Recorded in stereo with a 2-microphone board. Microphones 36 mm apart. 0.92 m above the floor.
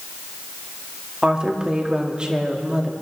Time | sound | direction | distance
1.2 | a woman speaking | 25° right (ahead or behind) | 1.7 m